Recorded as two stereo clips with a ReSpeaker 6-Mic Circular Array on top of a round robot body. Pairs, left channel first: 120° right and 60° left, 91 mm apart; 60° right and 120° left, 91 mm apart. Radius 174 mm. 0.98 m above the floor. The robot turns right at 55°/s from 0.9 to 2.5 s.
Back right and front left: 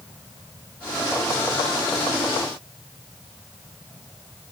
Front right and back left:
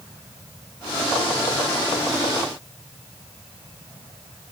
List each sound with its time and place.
Only background noise.